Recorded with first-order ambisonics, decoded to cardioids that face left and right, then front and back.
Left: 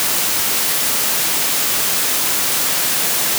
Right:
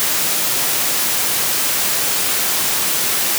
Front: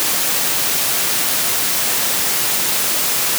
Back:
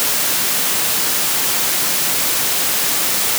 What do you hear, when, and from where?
Only background noise.